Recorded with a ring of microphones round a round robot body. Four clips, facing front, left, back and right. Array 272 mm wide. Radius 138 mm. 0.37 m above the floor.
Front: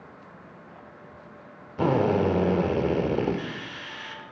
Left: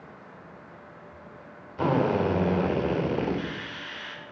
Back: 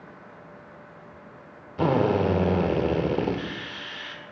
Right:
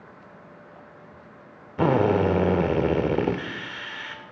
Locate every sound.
1.8 s a drill: 100° right, 0.9 m